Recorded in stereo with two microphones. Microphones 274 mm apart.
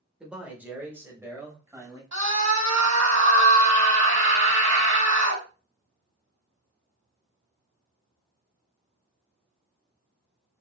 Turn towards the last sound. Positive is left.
turn(degrees=-75)  # may be behind; listen again after turning